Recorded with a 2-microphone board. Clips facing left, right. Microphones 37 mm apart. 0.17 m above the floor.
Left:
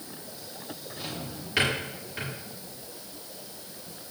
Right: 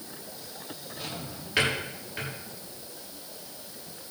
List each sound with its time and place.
1.0 s a drawer: 5° right (ahead or behind), 7.5 m